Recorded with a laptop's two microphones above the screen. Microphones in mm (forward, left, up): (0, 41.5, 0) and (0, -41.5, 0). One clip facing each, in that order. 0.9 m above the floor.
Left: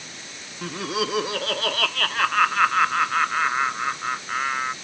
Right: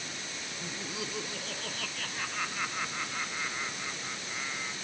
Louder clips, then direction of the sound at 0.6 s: Left 14 dB; 80° left.